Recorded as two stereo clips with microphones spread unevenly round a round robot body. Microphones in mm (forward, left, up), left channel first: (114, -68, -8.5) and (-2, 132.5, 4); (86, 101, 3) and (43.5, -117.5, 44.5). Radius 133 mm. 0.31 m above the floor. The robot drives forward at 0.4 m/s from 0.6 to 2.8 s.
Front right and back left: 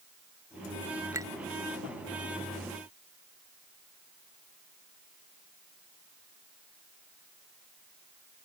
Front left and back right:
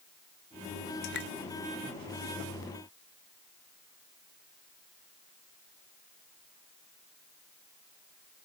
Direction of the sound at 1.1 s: 45° left.